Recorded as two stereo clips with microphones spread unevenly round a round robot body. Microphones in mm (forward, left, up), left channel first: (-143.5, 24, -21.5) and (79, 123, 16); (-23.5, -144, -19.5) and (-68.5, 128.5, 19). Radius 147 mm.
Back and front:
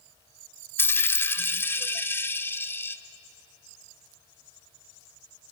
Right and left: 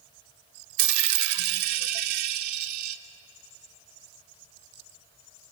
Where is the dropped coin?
120° left, 0.9 m.